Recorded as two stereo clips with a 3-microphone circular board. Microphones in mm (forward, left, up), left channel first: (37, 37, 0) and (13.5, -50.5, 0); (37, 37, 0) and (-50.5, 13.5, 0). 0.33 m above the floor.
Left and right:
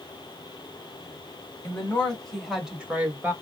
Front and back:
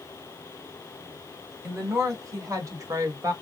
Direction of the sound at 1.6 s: 145° left.